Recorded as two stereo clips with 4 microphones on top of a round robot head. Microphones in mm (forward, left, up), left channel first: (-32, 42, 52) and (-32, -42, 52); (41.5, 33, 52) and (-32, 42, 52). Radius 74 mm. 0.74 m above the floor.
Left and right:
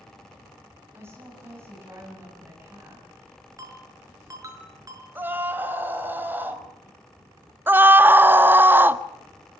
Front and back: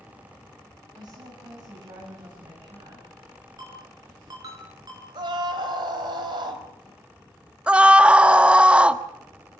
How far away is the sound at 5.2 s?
About 3.5 m.